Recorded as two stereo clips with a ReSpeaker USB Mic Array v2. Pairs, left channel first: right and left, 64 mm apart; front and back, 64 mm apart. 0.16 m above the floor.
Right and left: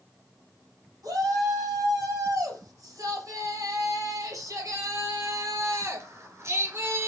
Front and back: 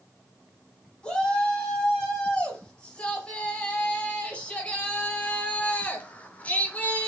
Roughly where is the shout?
Left.